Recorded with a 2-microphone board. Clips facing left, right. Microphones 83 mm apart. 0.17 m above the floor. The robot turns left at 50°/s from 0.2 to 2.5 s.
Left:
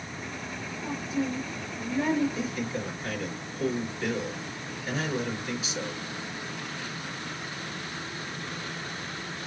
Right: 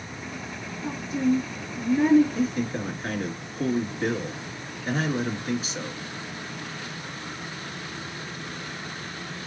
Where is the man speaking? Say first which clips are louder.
Right 5 dB; 45° right (ahead or behind), 2 m; by 6.0 s 40° right (ahead or behind), 2 m.